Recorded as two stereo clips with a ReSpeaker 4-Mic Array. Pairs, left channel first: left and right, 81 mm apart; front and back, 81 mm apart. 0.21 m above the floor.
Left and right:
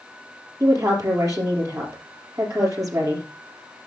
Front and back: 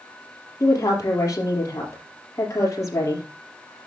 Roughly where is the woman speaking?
Ahead right.